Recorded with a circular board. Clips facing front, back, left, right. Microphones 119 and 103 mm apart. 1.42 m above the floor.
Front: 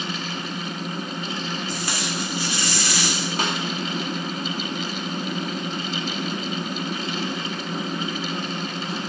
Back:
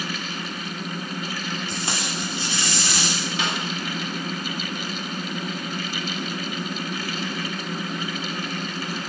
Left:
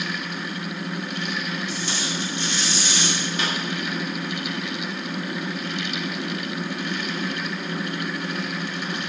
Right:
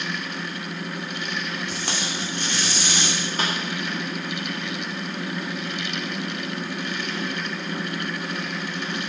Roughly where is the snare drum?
Ahead right.